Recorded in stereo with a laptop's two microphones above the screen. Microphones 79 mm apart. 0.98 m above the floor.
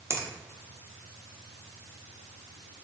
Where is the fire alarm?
No fire alarm in this recording.